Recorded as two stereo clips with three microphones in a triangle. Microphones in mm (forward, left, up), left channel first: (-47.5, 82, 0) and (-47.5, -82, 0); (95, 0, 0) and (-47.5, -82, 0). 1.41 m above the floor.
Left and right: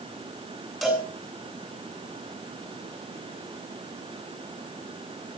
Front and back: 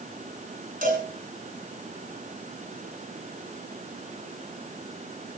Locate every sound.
0.8 s a cowbell: straight behind, 9 m